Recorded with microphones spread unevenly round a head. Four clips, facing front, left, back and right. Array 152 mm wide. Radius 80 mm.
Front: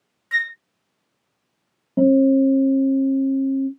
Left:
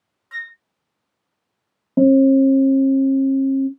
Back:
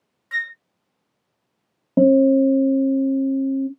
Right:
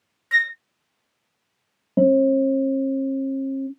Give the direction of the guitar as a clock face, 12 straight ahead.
6 o'clock.